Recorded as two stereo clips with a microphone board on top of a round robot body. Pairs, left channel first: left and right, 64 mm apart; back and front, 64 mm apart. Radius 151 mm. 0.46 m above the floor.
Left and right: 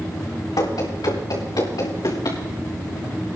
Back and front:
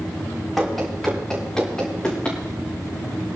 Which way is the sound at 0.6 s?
90° left.